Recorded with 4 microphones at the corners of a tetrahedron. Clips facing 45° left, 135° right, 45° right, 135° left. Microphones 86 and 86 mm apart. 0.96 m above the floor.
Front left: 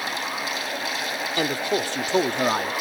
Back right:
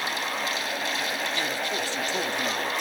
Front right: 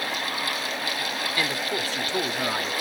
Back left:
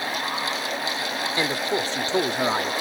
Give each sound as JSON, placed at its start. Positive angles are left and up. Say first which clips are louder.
{"t": 1.4, "sound": "a man speaking", "louder": "front left 5 dB, back left 4 dB", "azimuth_deg": 75}